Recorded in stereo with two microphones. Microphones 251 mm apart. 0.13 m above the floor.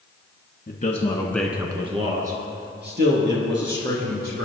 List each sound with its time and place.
0.7 s a man speaking: 40° left (ahead or behind), 1.5 m; by 4.4 s 55° right (ahead or behind), 4.5 m